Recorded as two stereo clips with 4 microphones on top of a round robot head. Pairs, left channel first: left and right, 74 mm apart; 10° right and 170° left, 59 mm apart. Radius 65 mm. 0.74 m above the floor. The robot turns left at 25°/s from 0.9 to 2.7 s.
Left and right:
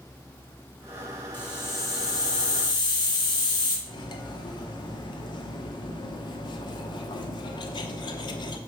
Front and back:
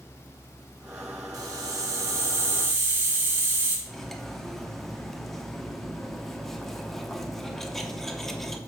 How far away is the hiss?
About 2 m.